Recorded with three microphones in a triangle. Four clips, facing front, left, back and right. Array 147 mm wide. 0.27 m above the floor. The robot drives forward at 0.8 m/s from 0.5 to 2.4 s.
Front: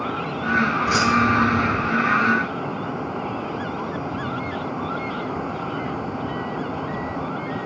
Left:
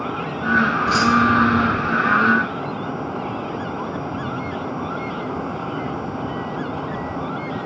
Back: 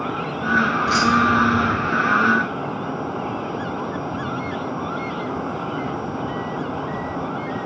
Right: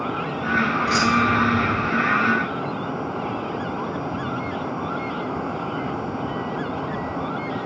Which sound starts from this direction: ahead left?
Keys jangling, at 0.9 s.